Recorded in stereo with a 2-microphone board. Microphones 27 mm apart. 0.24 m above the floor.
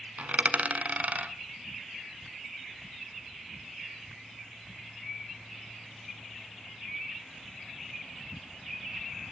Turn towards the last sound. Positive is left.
turn(degrees=-65)  # may be behind; listen again after turning